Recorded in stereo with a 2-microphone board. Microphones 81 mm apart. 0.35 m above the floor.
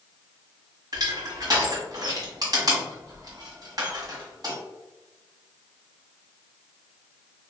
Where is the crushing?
50° right (ahead or behind), 1.2 m.